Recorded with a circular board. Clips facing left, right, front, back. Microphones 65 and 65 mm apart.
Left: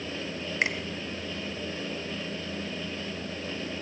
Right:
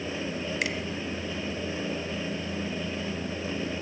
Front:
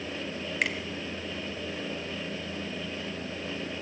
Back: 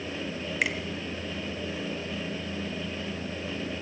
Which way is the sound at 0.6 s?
100° left.